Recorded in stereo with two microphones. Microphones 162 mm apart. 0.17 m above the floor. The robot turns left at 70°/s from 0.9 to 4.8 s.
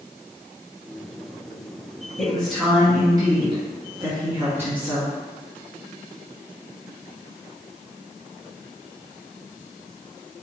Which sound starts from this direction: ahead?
A woman speaking, at 2.2 s.